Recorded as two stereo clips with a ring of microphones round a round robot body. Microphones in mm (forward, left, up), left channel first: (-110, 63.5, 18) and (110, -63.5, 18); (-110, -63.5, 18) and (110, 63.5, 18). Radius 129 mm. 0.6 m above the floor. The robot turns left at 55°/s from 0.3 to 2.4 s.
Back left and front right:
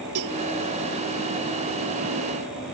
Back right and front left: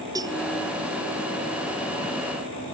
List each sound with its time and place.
0.1 s a cowbell: 45° right; by 0.4 s 50° right